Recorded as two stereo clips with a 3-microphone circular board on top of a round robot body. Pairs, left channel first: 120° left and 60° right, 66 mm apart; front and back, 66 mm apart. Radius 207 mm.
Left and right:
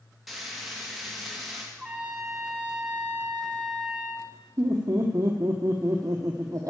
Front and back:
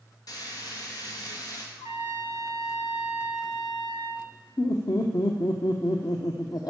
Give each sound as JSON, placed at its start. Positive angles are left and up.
{"t": 0.3, "sound": "frying", "azimuth_deg": 30, "distance_m": 2.5}
{"t": 1.8, "sound": "a trumpet", "azimuth_deg": 25, "distance_m": 0.6}
{"t": 4.6, "sound": "laughter", "azimuth_deg": -25, "distance_m": 1.1}